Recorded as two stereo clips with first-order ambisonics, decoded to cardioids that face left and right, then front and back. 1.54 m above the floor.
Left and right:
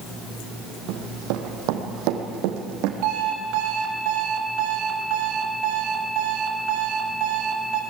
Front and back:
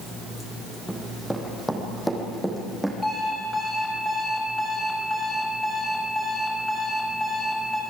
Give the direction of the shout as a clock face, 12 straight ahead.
No shout in this recording.